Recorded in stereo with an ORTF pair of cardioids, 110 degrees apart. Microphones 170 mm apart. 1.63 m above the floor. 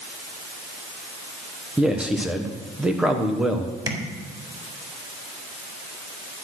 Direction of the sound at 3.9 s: 20° right.